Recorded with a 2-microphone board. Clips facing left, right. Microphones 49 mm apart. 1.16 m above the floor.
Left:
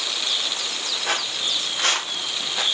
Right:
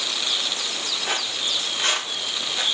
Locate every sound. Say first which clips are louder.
1.1 s footsteps: left 2 dB; 65° left (ahead or behind), 3.5 m; by 2.6 s 75° left (ahead or behind), 4 m